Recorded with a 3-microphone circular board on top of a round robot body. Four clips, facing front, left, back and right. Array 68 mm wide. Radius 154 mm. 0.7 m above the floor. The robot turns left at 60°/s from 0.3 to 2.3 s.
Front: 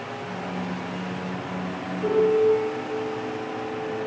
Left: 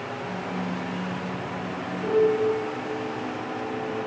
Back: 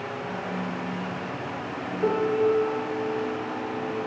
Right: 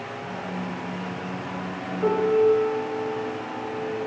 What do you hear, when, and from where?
2.0 s a piano: 120° right, 1.5 m; by 4.0 s 140° right, 1.5 m